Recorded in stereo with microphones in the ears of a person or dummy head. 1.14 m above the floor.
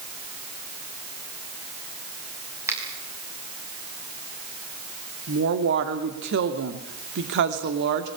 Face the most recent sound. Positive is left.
turn(degrees=-65)  # may be behind; listen again after turning